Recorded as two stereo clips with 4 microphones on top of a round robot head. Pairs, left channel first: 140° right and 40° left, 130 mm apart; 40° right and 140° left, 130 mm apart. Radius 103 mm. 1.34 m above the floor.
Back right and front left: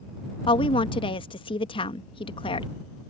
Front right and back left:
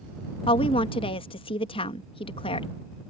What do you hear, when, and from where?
0.5 s a woman speaking: 90° right